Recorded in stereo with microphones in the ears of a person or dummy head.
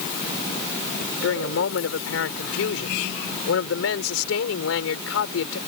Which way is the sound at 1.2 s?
70° left (ahead or behind).